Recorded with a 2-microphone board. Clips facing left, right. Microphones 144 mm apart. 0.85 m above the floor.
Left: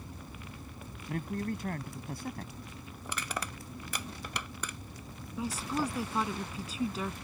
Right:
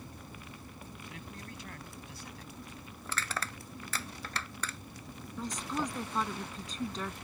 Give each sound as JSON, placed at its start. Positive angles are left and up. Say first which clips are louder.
{"t": 1.1, "sound": "a man speaking", "louder": "left 16 dB", "side_deg": 55}
{"t": 3.0, "sound": "crushing", "louder": "left 1 dB", "side_deg": 15}
{"t": 5.4, "sound": "a woman speaking", "louder": "left 3 dB", "side_deg": 10}